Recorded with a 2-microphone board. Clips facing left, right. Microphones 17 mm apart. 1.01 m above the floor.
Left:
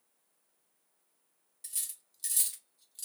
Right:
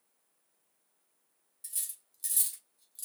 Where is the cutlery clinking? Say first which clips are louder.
Left 1 dB; 25° left (ahead or behind), 1.3 m.